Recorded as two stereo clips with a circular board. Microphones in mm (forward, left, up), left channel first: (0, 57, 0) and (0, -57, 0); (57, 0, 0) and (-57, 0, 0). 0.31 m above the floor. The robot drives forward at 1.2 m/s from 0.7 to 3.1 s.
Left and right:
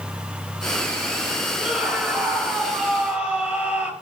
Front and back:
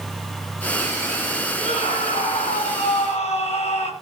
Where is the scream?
10° right, 8 m.